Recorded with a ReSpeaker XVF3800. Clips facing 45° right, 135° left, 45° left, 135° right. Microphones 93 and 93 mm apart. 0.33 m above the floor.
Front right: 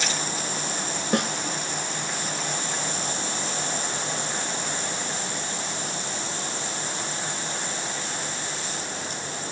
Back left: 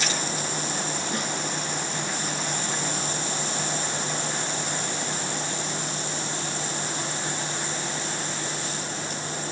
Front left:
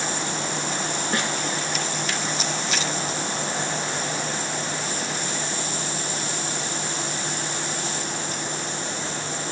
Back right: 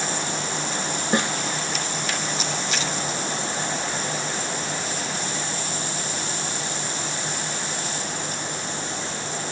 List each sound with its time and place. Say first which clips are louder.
1.1 s a snare drum: front right 10 dB, back right 5 dB; 70° right, 0.9 m